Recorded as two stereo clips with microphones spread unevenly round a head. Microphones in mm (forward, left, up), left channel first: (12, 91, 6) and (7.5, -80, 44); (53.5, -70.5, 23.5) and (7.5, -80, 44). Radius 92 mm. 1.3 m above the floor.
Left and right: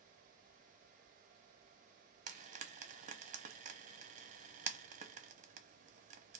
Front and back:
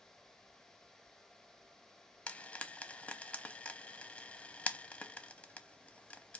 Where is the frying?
40° right, 0.6 m.